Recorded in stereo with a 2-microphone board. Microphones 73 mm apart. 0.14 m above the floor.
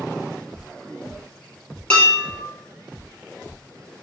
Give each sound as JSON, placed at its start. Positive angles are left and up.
{"t": 1.9, "sound": "dishes clattering", "side_deg": 15, "distance_m": 1.9}